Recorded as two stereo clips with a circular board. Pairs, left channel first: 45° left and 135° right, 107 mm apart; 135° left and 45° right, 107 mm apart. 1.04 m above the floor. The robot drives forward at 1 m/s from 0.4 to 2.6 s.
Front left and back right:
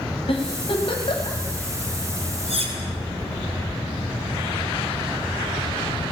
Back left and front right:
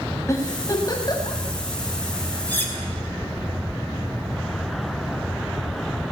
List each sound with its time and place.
0.3 s a giggle: 75° left, 4.5 m; by 1.4 s 85° left, 4.5 m
2.5 s cutlery clinking: 150° right, 4 m